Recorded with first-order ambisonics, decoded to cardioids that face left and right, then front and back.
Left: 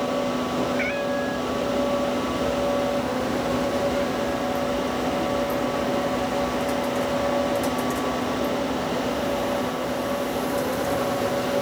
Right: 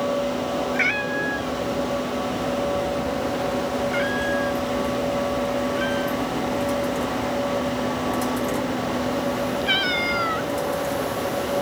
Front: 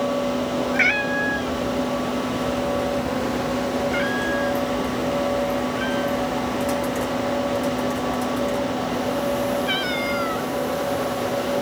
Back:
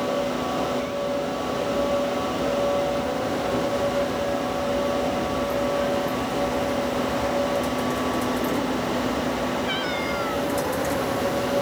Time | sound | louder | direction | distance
0.7 | a cat meowing | right 2 dB, front 6 dB | 20° right | ?